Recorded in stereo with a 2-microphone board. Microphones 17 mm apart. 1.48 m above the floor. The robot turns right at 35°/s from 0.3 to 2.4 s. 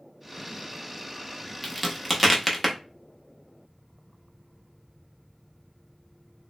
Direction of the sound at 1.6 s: 5° left (ahead or behind).